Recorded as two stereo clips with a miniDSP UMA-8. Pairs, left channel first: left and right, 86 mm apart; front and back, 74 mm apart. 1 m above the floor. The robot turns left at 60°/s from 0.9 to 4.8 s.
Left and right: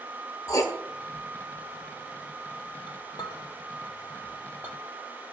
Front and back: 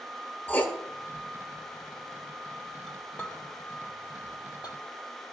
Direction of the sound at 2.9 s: 90° left.